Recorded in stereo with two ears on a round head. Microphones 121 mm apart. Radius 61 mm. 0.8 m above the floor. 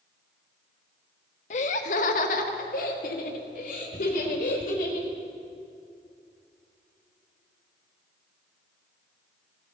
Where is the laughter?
55° left (ahead or behind), 1.0 m; by 5.1 s 60° left (ahead or behind), 3.5 m.